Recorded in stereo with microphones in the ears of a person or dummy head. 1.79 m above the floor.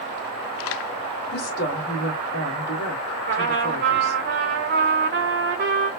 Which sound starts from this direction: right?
A trumpet, at 3.3 s.